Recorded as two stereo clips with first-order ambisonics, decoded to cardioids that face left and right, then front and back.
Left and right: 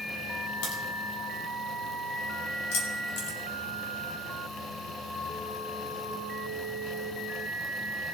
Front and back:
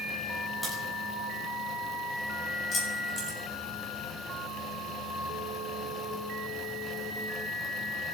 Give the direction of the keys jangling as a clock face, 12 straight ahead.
10 o'clock.